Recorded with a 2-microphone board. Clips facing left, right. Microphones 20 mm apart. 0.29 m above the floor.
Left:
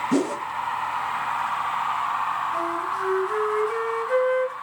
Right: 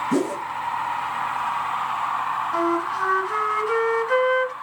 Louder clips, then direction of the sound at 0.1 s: Left 1 dB; 20° left (ahead or behind).